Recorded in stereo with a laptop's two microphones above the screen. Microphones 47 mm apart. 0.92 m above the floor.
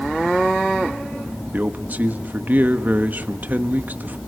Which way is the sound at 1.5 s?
40° right (ahead or behind).